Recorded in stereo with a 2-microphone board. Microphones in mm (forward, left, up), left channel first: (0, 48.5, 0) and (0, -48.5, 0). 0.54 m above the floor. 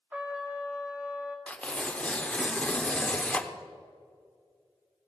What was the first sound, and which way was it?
A trumpet, 15° right (ahead or behind).